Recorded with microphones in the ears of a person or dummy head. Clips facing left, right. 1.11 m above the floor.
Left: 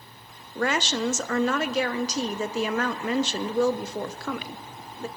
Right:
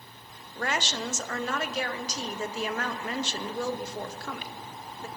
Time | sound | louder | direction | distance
0.6 | a woman speaking | left 6 dB | 50° left (ahead or behind) | 0.6 m